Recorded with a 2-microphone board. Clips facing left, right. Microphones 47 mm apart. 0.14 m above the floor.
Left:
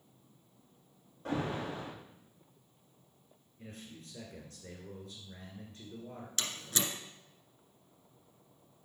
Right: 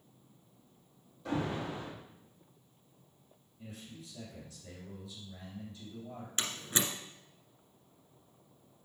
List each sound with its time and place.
1.2 s an alarm: 50° left (ahead or behind), 3.5 m
3.6 s a man speaking: 50° left (ahead or behind), 2.5 m
6.4 s a door slam: 20° right (ahead or behind), 1.6 m